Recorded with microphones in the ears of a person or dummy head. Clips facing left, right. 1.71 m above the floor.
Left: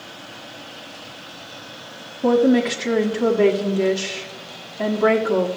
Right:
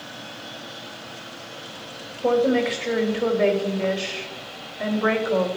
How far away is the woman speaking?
About 1.5 m.